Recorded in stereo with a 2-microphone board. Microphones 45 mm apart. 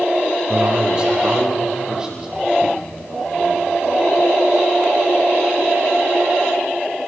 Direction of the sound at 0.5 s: 25° right (ahead or behind).